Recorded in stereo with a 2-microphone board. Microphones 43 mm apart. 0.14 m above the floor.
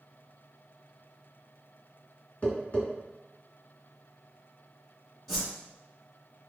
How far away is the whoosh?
About 1.9 m.